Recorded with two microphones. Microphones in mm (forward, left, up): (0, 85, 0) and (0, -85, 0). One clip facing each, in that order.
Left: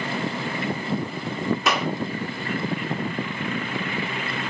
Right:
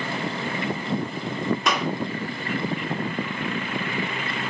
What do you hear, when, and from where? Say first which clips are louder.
1.7 s a clap: left 1 dB; 5° left (ahead or behind), 2.5 m